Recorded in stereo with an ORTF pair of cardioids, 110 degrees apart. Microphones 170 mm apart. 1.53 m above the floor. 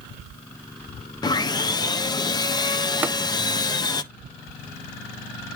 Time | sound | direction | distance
1.2 | sawing | 25° left | 0.8 m
3.0 | tapping | 10° right | 0.8 m